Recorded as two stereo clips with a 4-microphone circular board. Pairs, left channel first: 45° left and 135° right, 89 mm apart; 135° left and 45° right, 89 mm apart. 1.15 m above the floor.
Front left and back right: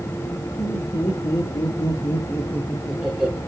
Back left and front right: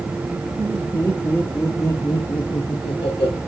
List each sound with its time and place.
0.6 s laughter: 55° left, 1.7 m; by 3.4 s 155° left, 1.0 m